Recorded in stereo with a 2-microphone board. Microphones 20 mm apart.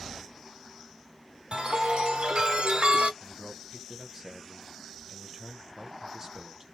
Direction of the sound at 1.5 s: 55° right (ahead or behind).